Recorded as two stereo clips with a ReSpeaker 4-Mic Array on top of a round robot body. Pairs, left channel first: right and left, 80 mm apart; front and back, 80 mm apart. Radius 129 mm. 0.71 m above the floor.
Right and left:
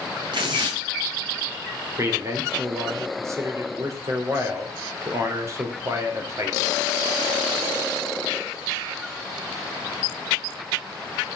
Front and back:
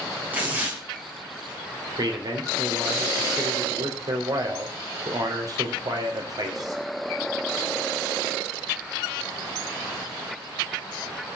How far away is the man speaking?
About 3.5 m.